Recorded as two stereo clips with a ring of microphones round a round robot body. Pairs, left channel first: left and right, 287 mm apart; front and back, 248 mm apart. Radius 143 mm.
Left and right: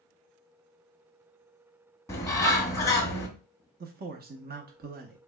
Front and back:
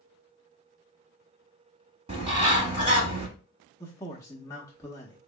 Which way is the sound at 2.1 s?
155° left.